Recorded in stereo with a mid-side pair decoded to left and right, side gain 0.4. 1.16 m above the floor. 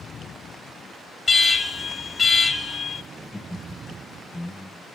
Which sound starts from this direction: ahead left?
An alarm, at 1.3 s.